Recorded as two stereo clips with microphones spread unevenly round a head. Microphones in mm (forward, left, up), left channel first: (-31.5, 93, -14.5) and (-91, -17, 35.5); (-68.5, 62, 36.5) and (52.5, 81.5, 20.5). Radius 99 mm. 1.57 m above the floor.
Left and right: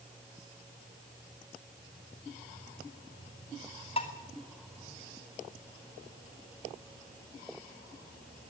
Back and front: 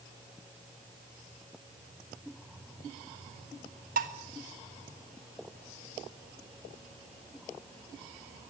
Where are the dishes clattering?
10° right, 1.4 m.